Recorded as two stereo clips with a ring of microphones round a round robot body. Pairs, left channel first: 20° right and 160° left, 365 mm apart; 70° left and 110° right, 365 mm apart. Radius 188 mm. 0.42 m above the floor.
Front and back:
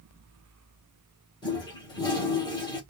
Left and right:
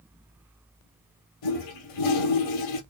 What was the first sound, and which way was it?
A toilet flushing, 55° left.